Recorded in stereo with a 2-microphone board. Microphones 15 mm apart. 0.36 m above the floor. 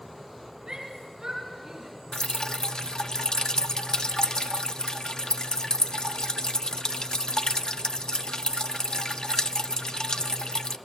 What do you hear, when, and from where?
0.7 s a shout: 55° right (ahead or behind), 5 m; by 1.9 s 45° right (ahead or behind), 6 m
2.1 s dripping: 55° left (ahead or behind), 0.6 m